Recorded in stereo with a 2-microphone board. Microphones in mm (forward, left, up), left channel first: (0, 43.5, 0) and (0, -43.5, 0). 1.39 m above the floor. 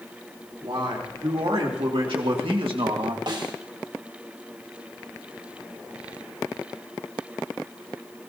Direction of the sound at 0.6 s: 85° right.